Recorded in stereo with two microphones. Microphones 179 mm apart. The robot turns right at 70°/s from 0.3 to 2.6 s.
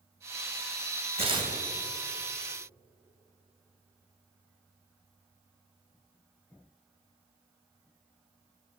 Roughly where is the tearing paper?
Right.